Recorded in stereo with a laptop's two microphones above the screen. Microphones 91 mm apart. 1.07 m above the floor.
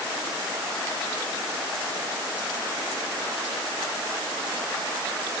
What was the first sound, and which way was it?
Only background noise.